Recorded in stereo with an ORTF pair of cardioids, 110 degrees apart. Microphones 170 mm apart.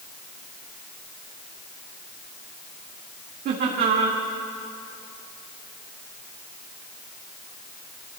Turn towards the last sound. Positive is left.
turn(degrees=-65)